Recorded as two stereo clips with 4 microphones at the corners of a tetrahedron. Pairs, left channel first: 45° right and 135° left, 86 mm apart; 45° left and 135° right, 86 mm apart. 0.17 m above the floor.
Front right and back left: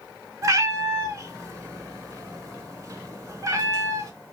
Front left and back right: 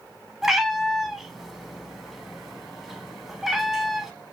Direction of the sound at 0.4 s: 140° left.